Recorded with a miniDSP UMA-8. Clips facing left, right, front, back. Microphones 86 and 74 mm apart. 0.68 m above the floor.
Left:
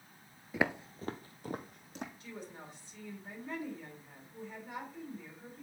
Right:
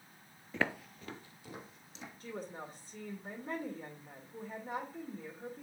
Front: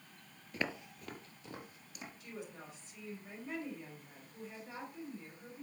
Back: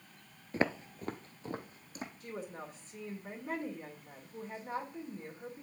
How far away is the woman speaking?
About 2.5 m.